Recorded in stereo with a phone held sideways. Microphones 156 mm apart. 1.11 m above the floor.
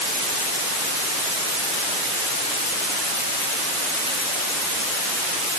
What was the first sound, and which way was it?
Only background noise.